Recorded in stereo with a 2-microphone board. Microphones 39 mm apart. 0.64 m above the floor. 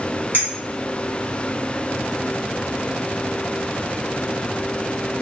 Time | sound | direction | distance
0.3 | a clink | 50° right (ahead or behind) | 1.5 m